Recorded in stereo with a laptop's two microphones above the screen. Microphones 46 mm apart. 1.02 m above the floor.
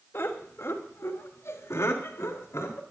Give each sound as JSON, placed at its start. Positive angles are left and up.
{"t": 0.1, "sound": "laughter", "side_deg": 65, "distance_m": 2.5}